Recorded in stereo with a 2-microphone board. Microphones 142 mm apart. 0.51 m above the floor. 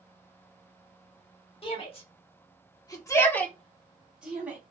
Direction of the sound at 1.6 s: 40° left (ahead or behind).